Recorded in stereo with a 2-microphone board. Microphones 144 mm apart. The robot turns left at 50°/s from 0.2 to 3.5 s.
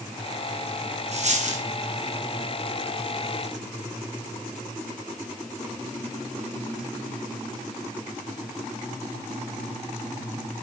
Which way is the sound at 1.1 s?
50° right (ahead or behind).